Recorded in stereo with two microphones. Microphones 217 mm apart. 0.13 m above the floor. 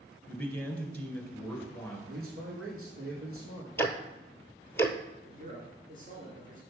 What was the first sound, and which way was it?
A man speaking, 5° left (ahead or behind).